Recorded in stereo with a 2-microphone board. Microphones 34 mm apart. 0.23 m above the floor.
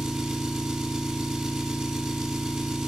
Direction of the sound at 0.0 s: 10° right (ahead or behind).